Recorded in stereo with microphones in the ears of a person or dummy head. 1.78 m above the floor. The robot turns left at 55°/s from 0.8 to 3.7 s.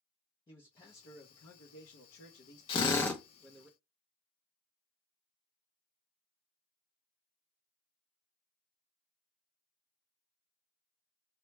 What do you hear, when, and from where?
0.5 s a man speaking: 155° left, 0.6 m; by 3.7 s 5° right, 0.6 m
2.7 s a drill: 30° left (ahead or behind), 0.6 m; by 3.2 s 5° left (ahead or behind), 0.6 m